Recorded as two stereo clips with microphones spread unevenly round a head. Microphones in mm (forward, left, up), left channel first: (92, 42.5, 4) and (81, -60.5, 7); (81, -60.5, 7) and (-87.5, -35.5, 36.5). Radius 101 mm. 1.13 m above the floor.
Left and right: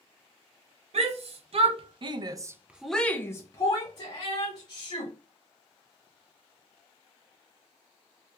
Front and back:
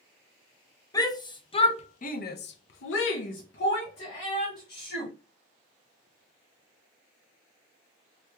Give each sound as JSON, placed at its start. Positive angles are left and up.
{"t": 0.9, "sound": "a shout", "azimuth_deg": -80, "distance_m": 1.1}